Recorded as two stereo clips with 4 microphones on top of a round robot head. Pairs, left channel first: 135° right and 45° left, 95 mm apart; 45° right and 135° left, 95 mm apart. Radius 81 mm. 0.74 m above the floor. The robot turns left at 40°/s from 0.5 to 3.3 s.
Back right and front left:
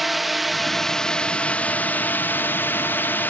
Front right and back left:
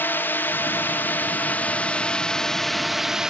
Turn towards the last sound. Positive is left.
turn(degrees=-155)